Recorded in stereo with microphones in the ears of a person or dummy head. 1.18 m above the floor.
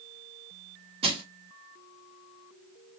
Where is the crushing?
30° right (ahead or behind), 0.9 m.